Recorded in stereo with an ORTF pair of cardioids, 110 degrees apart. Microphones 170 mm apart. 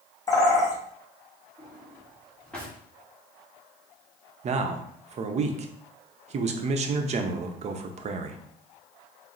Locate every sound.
0.3 s a bird: 20° left, 1.2 m
1.6 s a drawer: 5° left, 1.4 m
4.4 s a man speaking: 40° right, 0.7 m